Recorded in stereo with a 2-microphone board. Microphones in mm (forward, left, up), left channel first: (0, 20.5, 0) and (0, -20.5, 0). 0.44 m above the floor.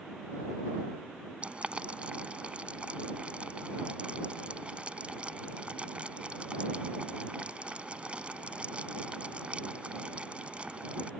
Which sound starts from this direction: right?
Boiling, at 1.4 s.